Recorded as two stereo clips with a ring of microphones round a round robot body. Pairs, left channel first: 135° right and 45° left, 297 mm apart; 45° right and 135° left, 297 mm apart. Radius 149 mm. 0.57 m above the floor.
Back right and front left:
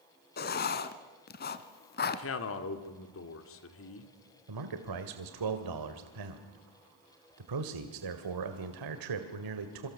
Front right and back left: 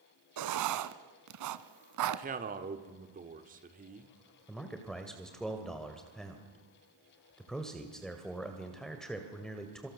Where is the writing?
165° left, 1.2 m.